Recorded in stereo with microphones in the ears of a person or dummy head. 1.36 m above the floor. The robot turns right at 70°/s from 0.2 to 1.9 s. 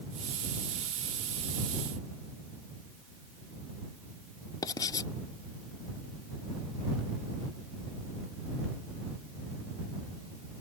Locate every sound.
4.6 s writing: 20° left (ahead or behind)